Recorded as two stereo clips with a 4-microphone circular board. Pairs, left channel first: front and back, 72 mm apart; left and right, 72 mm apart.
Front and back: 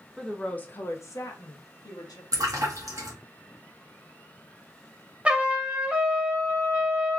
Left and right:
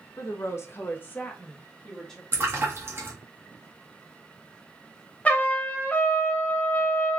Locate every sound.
0.2 s a woman speaking: 90° left, 0.6 m; by 2.2 s 10° left, 1.2 m
2.3 s a splash: 145° right, 1.0 m
5.2 s a trumpet: 125° left, 0.6 m